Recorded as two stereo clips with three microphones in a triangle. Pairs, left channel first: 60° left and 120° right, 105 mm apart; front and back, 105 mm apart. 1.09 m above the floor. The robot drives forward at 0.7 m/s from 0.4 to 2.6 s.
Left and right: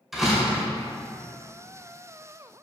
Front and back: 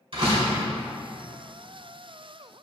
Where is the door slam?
150° left, 3 m; by 0.7 s 155° left, 3 m.